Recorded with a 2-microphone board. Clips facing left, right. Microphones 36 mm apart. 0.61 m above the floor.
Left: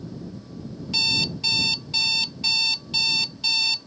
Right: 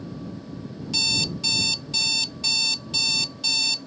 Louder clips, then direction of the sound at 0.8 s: Left 1 dB; 10° left (ahead or behind).